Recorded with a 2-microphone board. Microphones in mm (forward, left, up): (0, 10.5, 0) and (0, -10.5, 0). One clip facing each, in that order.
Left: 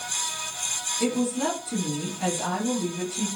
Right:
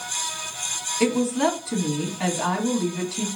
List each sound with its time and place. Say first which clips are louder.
1.0 s a woman speaking: right 5 dB; 45° right (ahead or behind), 2.5 m